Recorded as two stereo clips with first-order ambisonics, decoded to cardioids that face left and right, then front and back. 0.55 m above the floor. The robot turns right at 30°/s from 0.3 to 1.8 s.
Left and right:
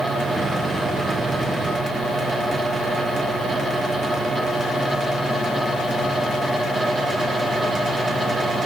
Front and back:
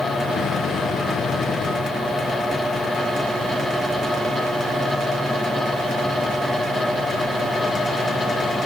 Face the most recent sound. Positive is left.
No sound to turn to.